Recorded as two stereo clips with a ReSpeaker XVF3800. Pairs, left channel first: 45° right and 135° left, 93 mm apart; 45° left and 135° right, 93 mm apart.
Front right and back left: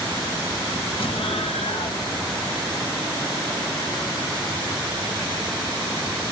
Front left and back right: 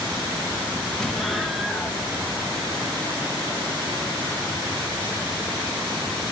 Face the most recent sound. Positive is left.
turn(degrees=-40)